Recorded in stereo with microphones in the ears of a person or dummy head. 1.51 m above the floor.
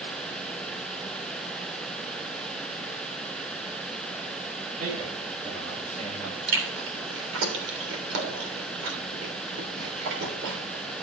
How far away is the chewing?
About 3 m.